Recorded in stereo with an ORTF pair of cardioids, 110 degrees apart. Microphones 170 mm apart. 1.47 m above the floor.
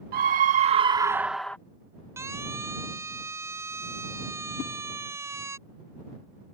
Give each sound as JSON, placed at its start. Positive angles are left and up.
{"t": 0.1, "sound": "a scream", "azimuth_deg": -60}
{"t": 2.2, "sound": "a siren", "azimuth_deg": -15}
{"t": 4.6, "sound": "a whoosh", "azimuth_deg": 65}